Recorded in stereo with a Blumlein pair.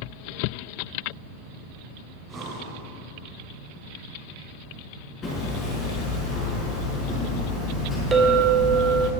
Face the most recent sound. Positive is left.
turn(degrees=-20)